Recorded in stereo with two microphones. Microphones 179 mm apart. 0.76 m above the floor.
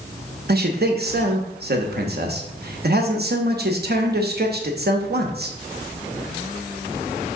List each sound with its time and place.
0.5 s a man speaking: 65° right (ahead or behind), 0.8 m